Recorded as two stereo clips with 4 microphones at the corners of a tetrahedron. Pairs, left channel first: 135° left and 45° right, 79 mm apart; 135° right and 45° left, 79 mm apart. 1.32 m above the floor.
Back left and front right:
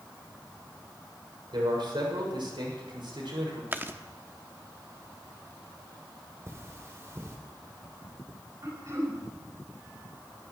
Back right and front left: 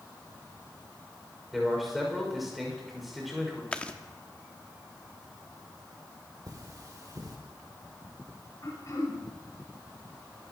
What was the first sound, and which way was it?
A man speaking, 45° right.